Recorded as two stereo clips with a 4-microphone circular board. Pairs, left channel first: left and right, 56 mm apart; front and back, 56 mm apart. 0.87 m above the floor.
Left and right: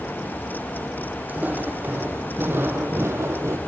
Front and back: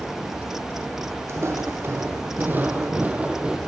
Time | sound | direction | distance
1.3 | footsteps | 145° right | 2.5 m